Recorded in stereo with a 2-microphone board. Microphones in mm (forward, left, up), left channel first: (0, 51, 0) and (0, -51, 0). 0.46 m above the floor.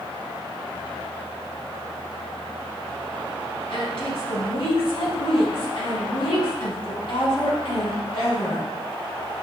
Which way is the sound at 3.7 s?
60° left (ahead or behind).